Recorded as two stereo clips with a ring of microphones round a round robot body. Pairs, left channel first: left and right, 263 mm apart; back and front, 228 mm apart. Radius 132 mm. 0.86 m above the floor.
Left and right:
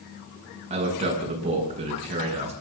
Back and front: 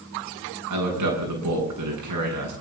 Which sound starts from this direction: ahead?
A man speaking, at 0.7 s.